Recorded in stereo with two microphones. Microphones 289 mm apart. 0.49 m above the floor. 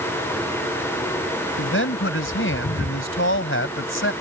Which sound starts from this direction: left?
A man speaking, at 1.6 s.